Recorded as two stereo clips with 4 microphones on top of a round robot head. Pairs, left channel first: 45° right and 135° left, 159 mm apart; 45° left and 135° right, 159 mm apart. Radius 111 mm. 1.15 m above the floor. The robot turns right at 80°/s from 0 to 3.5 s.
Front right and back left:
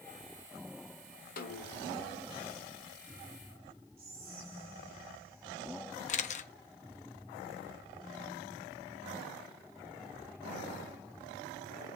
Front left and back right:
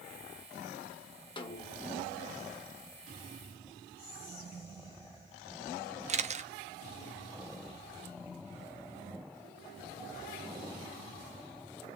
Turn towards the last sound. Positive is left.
turn(degrees=-90)